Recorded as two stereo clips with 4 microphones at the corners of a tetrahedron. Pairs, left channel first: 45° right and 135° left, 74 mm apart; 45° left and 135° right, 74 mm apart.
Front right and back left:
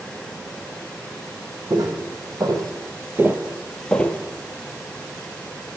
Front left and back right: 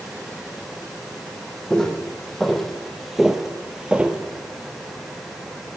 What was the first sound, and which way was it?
Footsteps, 125° left.